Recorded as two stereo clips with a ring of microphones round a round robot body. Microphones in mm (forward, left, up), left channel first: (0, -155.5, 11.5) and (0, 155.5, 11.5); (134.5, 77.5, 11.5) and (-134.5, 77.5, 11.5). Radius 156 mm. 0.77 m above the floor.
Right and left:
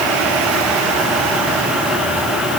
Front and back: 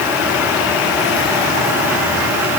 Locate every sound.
Only background noise.